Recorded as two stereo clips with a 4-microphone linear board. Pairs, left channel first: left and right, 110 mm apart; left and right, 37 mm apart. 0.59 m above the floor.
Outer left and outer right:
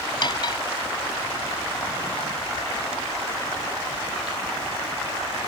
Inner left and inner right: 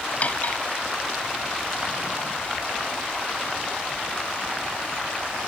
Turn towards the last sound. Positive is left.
turn(degrees=45)  # may be behind; listen again after turning